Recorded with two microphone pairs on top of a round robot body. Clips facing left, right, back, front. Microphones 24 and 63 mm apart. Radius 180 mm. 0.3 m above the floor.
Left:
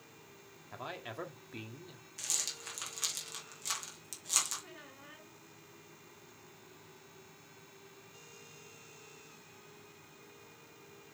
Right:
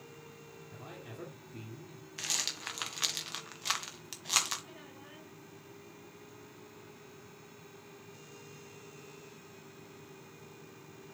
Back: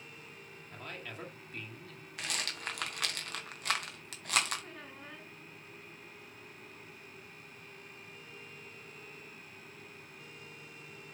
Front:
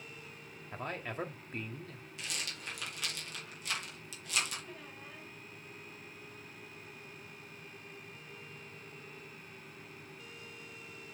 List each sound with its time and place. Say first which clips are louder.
0.7 s a man speaking: left 6 dB, front 6 dB; 45° left, 2.5 m
2.2 s a rattle: right 3 dB, back 4 dB; 140° right, 1.7 m
4.6 s a squeak: right 1 dB, back 1 dB; 165° left, 4.5 m